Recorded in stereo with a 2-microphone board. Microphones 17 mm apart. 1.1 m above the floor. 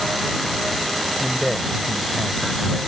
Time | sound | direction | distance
1.2 | a man speaking | centre (ahead or behind) | ?